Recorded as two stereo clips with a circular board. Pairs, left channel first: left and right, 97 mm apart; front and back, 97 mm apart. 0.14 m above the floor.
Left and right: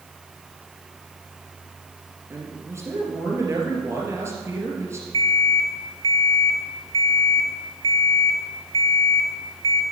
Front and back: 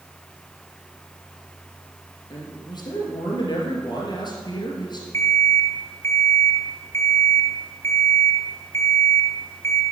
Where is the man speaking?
35° right, 3 m.